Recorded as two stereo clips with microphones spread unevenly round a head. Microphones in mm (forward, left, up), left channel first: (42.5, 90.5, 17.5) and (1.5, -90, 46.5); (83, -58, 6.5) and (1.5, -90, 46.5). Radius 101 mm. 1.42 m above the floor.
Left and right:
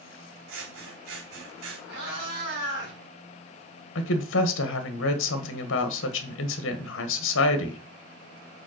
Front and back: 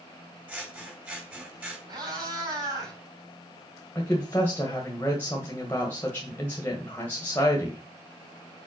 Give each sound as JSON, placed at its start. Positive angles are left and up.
{"t": 0.5, "sound": "scissors", "azimuth_deg": -95, "distance_m": 3.5}
{"t": 1.9, "sound": "a cat meowing", "azimuth_deg": -135, "distance_m": 3.5}
{"t": 4.0, "sound": "a woman speaking", "azimuth_deg": 100, "distance_m": 1.2}